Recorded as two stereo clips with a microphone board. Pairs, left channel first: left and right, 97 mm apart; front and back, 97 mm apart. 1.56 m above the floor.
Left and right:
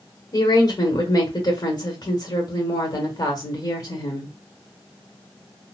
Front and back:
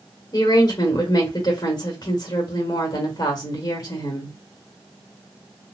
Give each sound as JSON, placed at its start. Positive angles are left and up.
{"t": 0.3, "sound": "a woman speaking", "azimuth_deg": 50, "distance_m": 1.6}